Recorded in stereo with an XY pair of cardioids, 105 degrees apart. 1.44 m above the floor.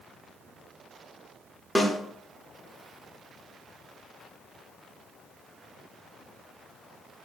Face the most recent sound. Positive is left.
turn(degrees=10)